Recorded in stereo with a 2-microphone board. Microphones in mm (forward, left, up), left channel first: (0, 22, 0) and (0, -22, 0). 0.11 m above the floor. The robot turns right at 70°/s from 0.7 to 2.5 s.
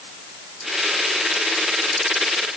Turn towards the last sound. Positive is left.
No sound to turn to.